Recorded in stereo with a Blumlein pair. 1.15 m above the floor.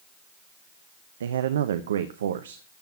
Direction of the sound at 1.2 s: 65° right.